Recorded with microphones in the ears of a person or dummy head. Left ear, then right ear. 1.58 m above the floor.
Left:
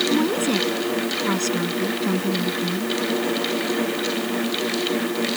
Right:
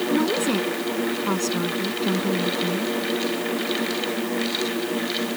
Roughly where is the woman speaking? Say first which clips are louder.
Left 1 dB; centre.